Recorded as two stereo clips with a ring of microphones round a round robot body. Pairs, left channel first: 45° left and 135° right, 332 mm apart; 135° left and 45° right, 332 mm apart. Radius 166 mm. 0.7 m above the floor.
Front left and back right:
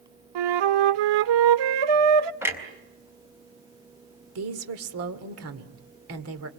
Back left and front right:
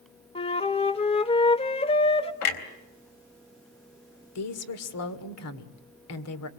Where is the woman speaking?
Straight behind, 2 m.